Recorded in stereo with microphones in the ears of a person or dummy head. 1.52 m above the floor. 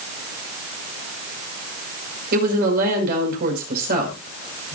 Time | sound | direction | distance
2.3 | a woman speaking | 55° right (ahead or behind) | 5.5 m